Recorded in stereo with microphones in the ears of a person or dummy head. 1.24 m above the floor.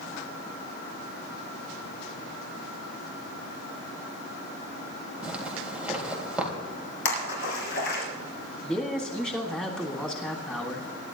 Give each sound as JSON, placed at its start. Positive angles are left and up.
{"t": 5.2, "sound": "a zipper", "side_deg": -5, "distance_m": 3.5}
{"t": 7.0, "sound": "a splash", "side_deg": 70, "distance_m": 5.5}
{"t": 8.6, "sound": "a man speaking", "side_deg": 5, "distance_m": 1.9}